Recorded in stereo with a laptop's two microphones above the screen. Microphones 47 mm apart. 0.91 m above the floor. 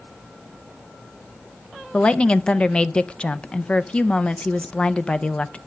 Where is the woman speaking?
20° left (ahead or behind), 0.5 m.